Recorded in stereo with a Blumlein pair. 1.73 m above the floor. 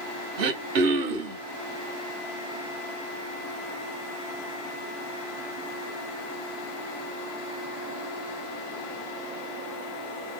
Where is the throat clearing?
50° right, 0.7 m.